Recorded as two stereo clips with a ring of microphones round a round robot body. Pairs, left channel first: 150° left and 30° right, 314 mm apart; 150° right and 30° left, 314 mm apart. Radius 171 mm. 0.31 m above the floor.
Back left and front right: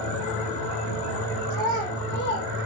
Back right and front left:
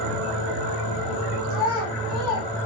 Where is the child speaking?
130° right, 2.5 m; by 2.6 s 135° right, 1.8 m.